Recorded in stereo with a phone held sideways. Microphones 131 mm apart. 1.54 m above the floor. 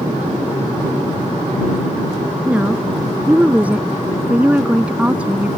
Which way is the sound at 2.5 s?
10° right (ahead or behind).